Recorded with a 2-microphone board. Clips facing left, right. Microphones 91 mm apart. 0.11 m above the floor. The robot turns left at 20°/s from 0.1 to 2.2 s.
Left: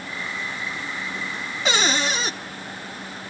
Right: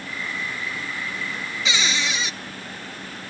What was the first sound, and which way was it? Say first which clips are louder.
A cupboard door: left 4 dB; 45° left (ahead or behind).